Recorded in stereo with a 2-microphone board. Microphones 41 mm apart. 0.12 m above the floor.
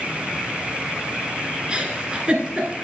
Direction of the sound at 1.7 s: 25° right (ahead or behind).